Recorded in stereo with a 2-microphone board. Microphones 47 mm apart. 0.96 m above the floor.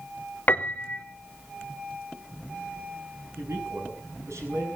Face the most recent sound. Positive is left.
turn(degrees=-75)  # may be behind; listen again after turning